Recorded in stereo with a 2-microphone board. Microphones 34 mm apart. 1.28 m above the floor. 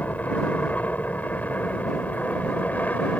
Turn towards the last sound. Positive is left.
turn(degrees=55)  # may be behind; listen again after turning